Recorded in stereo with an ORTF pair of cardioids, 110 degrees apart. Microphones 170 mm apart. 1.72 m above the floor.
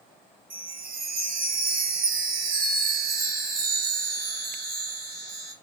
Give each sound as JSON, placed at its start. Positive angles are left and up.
{"t": 0.5, "sound": "a chime", "azimuth_deg": -60, "distance_m": 1.2}